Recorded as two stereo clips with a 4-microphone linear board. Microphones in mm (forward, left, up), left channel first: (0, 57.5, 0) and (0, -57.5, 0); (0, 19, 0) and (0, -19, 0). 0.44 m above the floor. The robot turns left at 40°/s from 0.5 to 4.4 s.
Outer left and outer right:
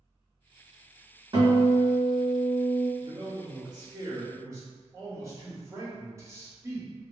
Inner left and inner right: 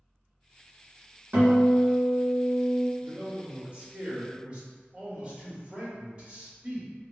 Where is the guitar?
95° right, 1.8 m; by 2.9 s 160° right, 1.8 m.